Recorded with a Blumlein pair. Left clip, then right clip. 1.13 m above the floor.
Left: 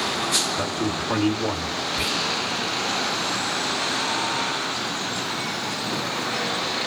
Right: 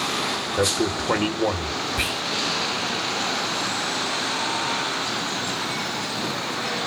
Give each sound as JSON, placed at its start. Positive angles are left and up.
{"t": 0.6, "sound": "a man speaking", "azimuth_deg": -35, "distance_m": 1.2}
{"t": 2.0, "sound": "whispering", "azimuth_deg": -30, "distance_m": 0.6}